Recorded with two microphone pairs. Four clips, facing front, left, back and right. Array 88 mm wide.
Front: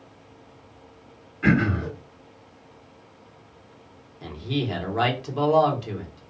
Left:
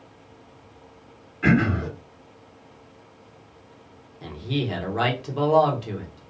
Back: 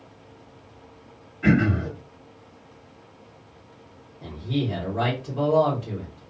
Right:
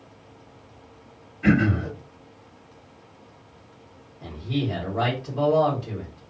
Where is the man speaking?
35° left, 1.0 m.